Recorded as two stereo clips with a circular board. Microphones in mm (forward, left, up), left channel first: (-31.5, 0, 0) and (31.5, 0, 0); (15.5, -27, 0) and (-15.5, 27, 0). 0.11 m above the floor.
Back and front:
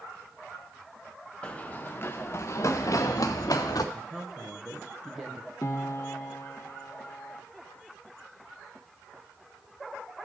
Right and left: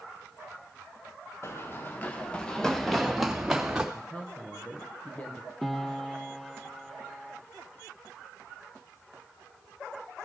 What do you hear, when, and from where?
1.4 s running footsteps: 105° right, 1.2 m; by 3.8 s 160° right, 1.9 m
3.9 s a man speaking: 80° right, 1.1 m
5.6 s a piano: 145° right, 0.7 m